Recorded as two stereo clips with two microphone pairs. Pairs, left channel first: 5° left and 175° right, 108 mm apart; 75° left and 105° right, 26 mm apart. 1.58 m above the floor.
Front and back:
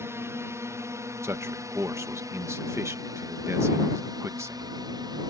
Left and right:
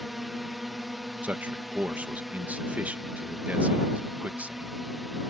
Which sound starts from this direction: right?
A man speaking, at 1.2 s.